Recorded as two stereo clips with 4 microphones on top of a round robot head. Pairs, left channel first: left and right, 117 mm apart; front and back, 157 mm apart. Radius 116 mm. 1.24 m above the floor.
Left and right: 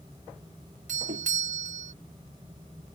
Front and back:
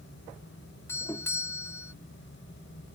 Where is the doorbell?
80° right.